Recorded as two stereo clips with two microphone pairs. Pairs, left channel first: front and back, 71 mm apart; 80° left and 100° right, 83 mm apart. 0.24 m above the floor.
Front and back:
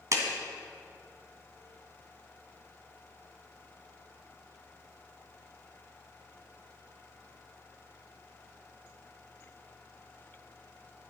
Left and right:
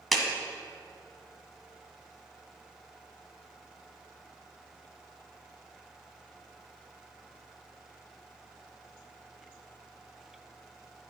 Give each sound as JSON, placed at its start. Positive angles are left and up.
{"t": 0.1, "sound": "a clap", "azimuth_deg": 165, "distance_m": 1.9}